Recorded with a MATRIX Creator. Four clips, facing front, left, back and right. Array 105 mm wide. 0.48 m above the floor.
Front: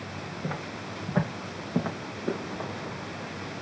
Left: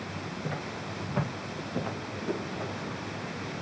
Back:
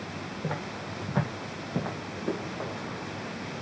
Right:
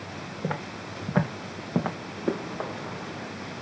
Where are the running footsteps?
85° right, 3 m; by 3.3 s 95° right, 3 m.